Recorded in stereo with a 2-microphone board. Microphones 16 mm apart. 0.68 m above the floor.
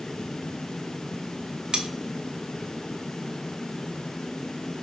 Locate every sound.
1.7 s cutlery clinking: 65° right (ahead or behind), 0.8 m